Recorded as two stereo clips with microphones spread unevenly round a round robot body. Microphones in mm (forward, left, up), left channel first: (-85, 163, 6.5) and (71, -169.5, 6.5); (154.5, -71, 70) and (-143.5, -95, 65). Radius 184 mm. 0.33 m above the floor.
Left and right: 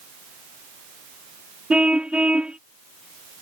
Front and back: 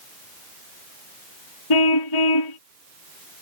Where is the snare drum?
I don't hear a snare drum.